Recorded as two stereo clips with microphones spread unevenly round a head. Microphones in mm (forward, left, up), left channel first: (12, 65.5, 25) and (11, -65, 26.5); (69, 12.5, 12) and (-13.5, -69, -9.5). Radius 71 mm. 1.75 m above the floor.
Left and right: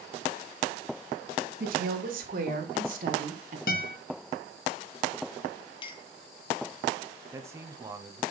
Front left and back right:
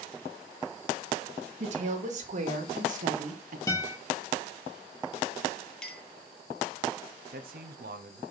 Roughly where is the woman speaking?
Behind right.